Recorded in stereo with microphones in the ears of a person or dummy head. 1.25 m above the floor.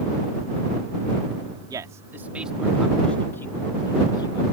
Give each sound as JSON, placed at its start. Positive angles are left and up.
{"t": 1.7, "sound": "a man speaking", "side_deg": -20}